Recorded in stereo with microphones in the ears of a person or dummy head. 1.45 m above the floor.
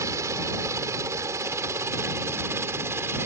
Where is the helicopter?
20° right (ahead or behind); by 3.3 s 15° right (ahead or behind).